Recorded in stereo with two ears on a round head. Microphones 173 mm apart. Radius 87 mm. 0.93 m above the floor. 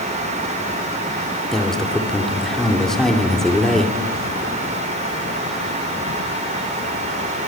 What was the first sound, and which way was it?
A man speaking, 5° left (ahead or behind).